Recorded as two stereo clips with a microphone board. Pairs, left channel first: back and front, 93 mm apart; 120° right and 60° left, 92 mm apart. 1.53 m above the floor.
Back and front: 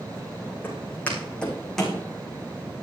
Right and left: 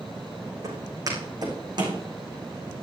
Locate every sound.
0.6 s footsteps: 110° left, 6 m; by 2.0 s 90° left, 5 m